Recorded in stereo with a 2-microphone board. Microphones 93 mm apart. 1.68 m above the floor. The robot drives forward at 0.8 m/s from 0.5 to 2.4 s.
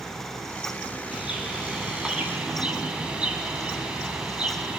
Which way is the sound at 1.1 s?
10° right (ahead or behind).